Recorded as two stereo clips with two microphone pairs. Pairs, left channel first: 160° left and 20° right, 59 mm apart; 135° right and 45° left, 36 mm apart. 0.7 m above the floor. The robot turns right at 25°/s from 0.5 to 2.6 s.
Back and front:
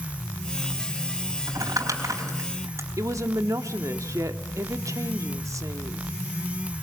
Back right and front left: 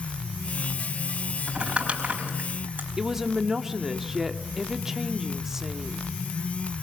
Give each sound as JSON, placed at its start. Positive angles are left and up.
{"t": 1.5, "sound": "crumpling", "azimuth_deg": -20, "distance_m": 4.0}
{"t": 3.0, "sound": "a woman speaking", "azimuth_deg": -30, "distance_m": 1.3}